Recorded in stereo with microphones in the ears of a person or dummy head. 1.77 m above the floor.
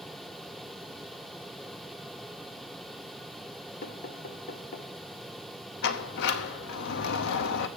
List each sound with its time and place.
3.8 s knocking: 45° left (ahead or behind), 1.0 m
5.8 s a sliding door: 65° left (ahead or behind), 0.8 m